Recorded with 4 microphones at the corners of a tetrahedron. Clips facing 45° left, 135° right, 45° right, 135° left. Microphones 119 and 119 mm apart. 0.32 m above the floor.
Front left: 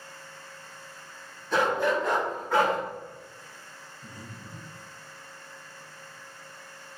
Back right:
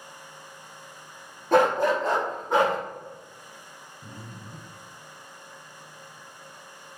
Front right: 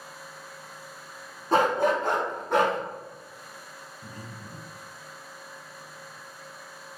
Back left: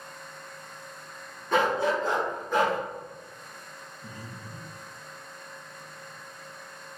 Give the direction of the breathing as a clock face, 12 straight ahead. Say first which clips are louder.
Back right 2 dB, even; 3 o'clock.